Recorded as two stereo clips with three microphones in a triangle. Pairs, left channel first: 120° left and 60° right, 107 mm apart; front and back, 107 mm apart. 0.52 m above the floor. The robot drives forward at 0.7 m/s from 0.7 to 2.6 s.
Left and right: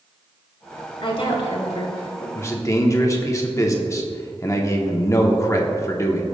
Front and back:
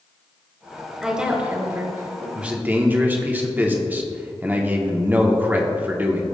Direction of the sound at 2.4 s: 105° left.